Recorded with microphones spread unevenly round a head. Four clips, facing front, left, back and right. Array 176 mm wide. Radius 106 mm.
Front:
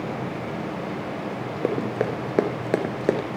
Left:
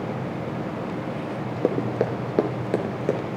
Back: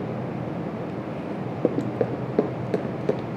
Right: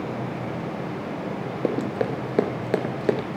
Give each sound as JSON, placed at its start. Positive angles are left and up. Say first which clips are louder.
{"t": 1.6, "sound": "running footsteps", "louder": "left 2 dB, back 1 dB", "azimuth_deg": 130, "distance_m": 1.3}